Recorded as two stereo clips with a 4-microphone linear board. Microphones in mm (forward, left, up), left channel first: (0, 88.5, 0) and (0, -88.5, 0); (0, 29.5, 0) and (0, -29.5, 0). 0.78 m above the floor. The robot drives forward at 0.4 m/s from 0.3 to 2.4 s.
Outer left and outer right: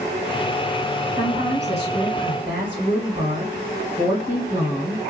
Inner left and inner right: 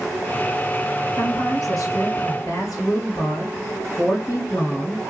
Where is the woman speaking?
70° left (ahead or behind), 2.5 m; by 5.0 s 65° left (ahead or behind), 2.5 m.